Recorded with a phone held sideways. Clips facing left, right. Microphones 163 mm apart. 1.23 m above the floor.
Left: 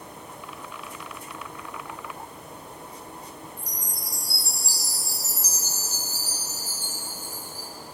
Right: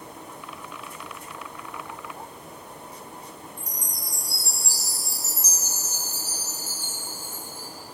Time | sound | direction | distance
3.6 | a chime | 35° left (ahead or behind) | 3 m